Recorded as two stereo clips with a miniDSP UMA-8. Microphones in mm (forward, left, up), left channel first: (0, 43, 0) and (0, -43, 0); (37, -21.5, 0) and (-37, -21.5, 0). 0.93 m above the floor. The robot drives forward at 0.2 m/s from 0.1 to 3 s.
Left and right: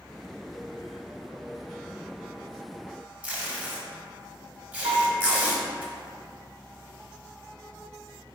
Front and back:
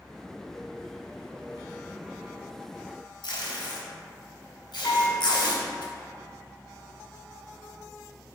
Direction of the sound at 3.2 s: 15° right.